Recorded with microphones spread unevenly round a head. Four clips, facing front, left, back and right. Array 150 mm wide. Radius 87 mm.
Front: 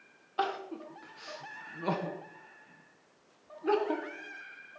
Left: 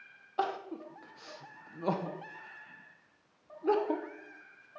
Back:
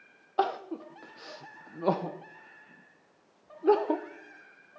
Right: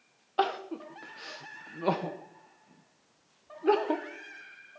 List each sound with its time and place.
0.4 s crying: 160° right, 0.9 m